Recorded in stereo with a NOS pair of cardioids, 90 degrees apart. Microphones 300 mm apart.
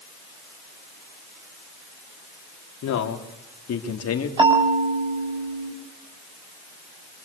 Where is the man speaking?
65° left, 3.5 m; by 4.3 s 50° left, 3.5 m.